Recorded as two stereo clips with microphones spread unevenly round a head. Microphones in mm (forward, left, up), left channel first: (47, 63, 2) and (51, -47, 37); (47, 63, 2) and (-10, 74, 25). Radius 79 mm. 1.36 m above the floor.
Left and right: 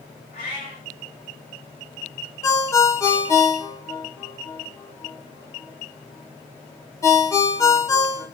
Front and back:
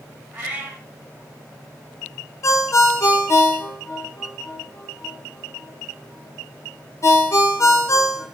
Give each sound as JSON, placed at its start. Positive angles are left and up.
{"t": 0.3, "sound": "a cat meowing", "azimuth_deg": 150, "distance_m": 1.6}
{"t": 2.4, "sound": "a ringtone", "azimuth_deg": 20, "distance_m": 1.0}